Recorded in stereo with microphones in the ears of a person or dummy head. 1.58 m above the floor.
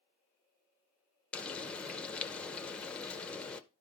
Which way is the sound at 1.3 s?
10° left (ahead or behind).